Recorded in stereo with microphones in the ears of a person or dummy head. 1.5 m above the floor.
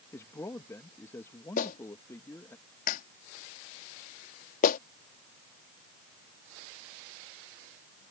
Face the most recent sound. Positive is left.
turn(degrees=45)  # may be behind; listen again after turning